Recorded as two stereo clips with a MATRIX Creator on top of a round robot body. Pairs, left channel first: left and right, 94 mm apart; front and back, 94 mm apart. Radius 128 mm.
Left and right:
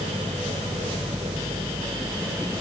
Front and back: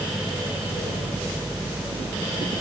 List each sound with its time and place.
Only background noise.